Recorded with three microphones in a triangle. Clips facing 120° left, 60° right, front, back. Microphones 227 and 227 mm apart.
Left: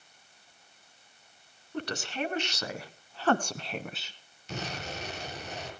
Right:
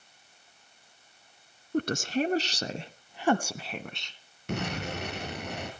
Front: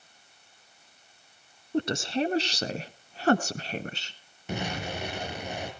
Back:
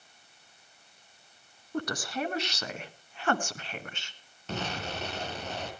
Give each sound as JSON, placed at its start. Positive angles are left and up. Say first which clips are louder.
{"t": 1.7, "sound": "a woman speaking", "louder": "right 7 dB, front 6 dB", "azimuth_deg": -55, "distance_m": 1.6}
{"t": 4.5, "sound": "an explosion", "louder": "right 5 dB, front 2 dB", "azimuth_deg": -75, "distance_m": 4.5}